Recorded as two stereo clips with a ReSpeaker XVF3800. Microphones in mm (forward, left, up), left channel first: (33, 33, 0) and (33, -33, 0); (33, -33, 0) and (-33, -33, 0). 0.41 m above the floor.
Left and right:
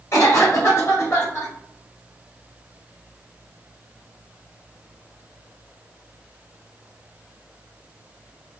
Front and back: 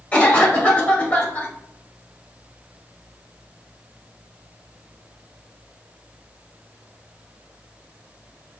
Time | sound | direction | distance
0.1 | a cough | 65° left | 1.8 m